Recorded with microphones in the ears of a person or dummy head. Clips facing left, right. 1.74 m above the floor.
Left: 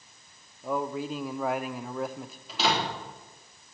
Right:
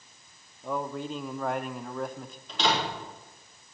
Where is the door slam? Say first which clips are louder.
Even; 10° left (ahead or behind), 3.5 m.